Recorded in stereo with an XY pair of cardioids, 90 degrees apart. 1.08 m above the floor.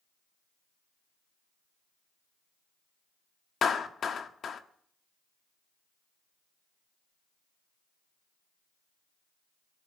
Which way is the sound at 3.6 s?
55° left.